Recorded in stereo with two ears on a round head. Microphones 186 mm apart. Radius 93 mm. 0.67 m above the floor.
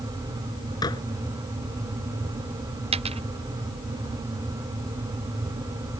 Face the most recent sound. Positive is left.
turn(degrees=-30)  # may be behind; listen again after turning